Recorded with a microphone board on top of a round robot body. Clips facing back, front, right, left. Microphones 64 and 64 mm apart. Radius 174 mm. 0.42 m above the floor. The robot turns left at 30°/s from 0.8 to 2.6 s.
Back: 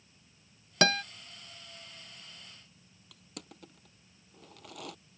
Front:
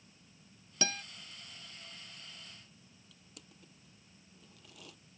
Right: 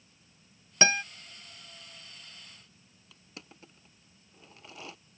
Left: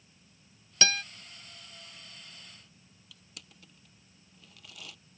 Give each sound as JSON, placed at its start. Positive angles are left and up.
{"t": 0.8, "sound": "a guitar", "azimuth_deg": -155}
{"t": 3.1, "sound": "crushing", "azimuth_deg": -150}